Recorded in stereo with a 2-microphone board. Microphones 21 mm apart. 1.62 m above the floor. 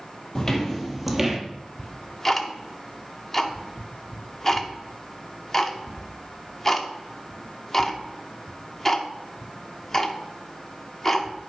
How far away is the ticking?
About 1.0 m.